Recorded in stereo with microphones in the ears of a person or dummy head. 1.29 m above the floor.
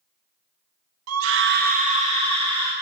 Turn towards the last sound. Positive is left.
turn(degrees=-25)  # may be behind; listen again after turning